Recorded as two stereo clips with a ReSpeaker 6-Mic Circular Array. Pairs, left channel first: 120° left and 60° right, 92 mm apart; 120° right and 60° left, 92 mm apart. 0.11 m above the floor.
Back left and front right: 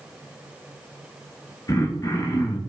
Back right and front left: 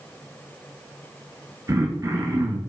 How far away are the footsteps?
I don't hear footsteps.